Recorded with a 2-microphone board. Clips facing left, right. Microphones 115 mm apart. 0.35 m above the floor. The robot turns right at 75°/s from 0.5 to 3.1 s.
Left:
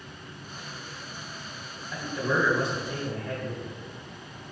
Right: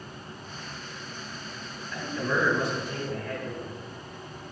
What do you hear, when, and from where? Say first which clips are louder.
1.9 s a man speaking: left 1 dB; 15° left (ahead or behind), 1.4 m; by 3.7 s 20° left (ahead or behind), 1.4 m